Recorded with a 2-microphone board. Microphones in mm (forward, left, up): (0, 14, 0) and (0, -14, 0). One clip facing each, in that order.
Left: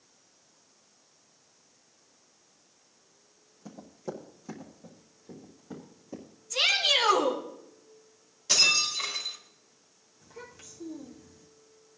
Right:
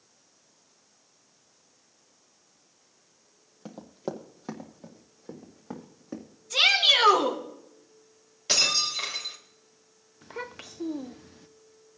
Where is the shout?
75° right (ahead or behind), 4 m.